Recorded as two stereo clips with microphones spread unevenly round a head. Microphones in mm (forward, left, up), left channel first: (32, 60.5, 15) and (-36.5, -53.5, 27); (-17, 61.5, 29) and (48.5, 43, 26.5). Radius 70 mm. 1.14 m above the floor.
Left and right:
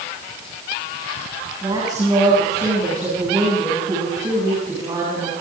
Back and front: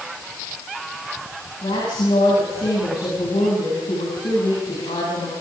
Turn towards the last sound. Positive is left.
turn(degrees=175)